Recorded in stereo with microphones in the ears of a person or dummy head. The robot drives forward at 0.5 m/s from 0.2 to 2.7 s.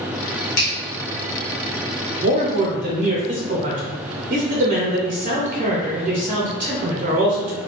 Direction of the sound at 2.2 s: 40° right (ahead or behind).